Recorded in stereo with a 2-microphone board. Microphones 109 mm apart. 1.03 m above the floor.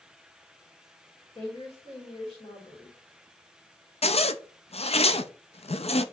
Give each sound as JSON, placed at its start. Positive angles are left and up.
{"t": 1.4, "sound": "a woman speaking", "side_deg": 60, "distance_m": 3.0}
{"t": 4.0, "sound": "a zipper", "side_deg": 70, "distance_m": 0.6}